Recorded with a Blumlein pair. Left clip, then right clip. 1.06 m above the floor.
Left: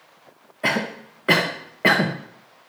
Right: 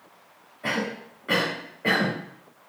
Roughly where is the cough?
Ahead left.